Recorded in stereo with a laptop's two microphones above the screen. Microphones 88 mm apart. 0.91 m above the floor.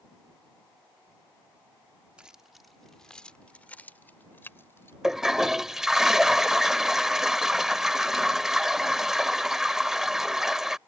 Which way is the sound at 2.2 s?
10° right (ahead or behind).